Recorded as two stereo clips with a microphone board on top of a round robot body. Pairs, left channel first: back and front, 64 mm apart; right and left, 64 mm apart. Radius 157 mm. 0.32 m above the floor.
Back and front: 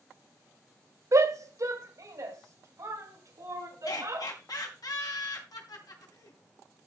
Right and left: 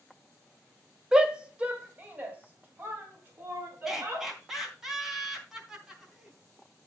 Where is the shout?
15° left, 1.7 m; by 4.3 s 35° left, 6 m.